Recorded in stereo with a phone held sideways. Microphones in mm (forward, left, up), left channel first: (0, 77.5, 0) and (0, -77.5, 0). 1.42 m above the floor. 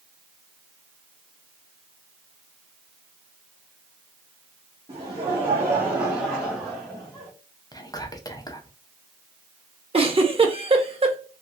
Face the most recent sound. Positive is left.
turn(degrees=-35)  # may be behind; listen again after turning